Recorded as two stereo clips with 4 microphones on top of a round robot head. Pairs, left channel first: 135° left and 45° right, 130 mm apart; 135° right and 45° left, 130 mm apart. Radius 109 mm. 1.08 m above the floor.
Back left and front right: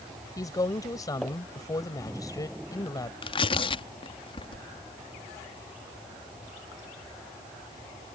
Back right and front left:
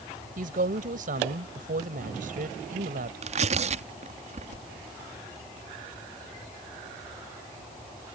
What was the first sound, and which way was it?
A woman speaking, 70° left.